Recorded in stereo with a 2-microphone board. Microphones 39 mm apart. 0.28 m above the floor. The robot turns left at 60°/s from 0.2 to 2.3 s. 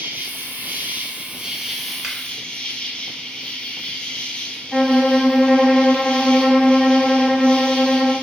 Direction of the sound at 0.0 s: 80° right.